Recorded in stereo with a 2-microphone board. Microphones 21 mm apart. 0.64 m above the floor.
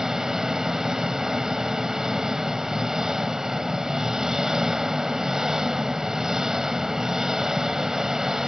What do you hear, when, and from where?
0.0 s an engine running: 25° right (ahead or behind), 0.7 m